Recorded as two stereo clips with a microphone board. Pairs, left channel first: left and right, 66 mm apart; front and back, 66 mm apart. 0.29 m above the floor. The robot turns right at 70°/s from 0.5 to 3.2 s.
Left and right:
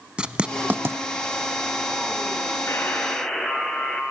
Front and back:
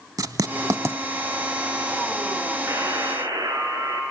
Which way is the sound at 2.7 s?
140° left.